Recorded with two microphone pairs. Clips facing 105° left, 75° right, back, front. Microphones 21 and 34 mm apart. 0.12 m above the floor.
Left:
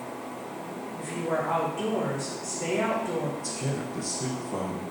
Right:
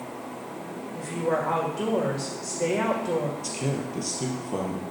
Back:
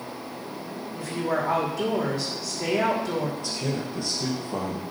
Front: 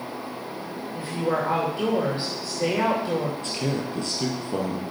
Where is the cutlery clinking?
No cutlery clinking in this recording.